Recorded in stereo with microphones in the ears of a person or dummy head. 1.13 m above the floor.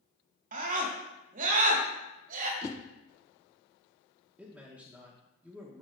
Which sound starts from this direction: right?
A scream, at 0.5 s.